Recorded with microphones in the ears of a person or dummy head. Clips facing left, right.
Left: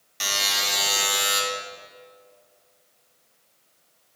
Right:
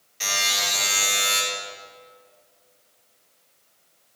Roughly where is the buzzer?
Left.